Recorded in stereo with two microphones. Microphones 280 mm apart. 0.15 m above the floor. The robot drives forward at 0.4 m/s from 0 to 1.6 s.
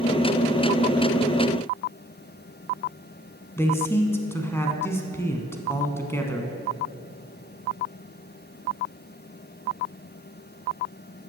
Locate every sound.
3.6 s a man speaking: 10° left (ahead or behind), 1.1 m